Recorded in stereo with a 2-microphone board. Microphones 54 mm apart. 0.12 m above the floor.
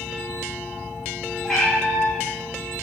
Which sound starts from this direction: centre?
A cat meowing, at 1.4 s.